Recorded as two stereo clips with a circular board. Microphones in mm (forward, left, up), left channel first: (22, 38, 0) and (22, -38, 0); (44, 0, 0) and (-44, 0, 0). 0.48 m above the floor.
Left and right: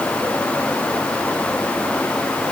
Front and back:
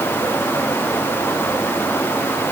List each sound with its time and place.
Only background noise.